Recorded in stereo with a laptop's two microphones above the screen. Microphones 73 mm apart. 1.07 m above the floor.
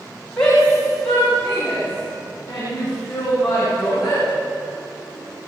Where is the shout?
10° left (ahead or behind), 7 m; by 4.2 s centre (ahead or behind), 10 m.